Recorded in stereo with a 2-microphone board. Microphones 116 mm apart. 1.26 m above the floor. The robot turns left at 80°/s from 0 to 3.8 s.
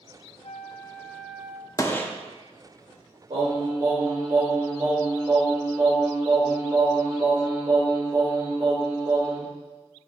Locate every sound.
0.4 s a flute: 70° left, 0.5 m; by 1.7 s 30° right, 0.5 m
1.8 s a gunshot: 30° left (ahead or behind), 0.8 m; by 2.1 s 10° left (ahead or behind), 0.8 m
3.3 s singing: 105° right, 3.5 m; by 9.4 s 145° right, 3.5 m